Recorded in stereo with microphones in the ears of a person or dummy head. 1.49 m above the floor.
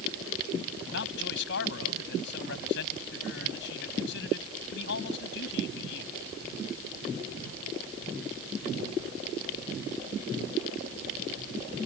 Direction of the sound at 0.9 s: 70° left (ahead or behind).